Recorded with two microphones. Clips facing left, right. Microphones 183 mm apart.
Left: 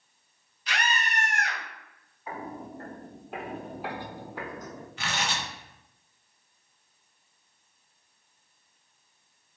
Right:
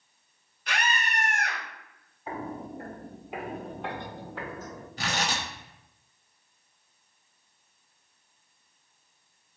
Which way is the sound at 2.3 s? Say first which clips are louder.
Right 2 dB; 30° right (ahead or behind).